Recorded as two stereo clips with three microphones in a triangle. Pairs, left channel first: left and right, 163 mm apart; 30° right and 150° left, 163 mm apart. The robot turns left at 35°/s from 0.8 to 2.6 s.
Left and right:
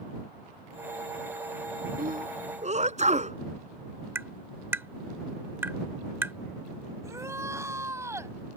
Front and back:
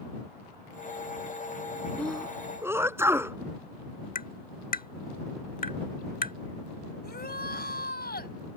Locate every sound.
2.0 s a sneeze: 115° right; by 3.4 s 135° right
4.2 s tapping: 15° right
7.0 s a shout: 20° right